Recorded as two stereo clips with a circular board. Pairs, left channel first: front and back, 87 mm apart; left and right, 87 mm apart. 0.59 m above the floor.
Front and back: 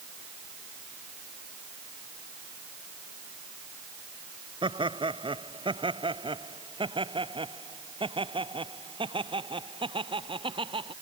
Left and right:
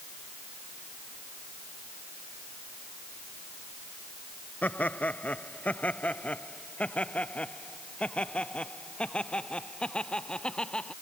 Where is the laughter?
160° left; by 10.9 s 170° left.